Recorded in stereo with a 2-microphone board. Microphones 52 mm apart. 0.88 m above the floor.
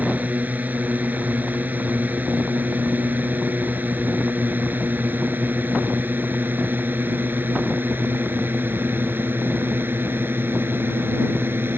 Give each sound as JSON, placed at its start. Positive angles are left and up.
{"t": 0.0, "sound": "a drone", "side_deg": -30}